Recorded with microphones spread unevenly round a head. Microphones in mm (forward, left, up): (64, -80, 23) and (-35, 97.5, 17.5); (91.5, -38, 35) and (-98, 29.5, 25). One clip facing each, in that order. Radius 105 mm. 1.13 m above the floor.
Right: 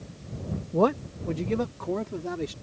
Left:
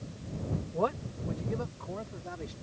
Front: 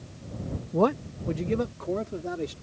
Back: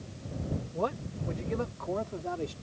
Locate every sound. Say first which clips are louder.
0.7 s a man speaking: right 10 dB, front 12 dB; 30° right; by 2.5 s 85° right